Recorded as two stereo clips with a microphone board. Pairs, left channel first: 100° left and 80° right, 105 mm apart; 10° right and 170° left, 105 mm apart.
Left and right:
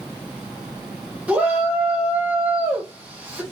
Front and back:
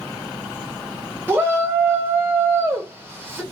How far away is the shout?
About 0.8 m.